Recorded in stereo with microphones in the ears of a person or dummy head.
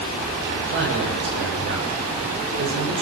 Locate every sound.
0.7 s a man speaking: 55° right (ahead or behind), 7 m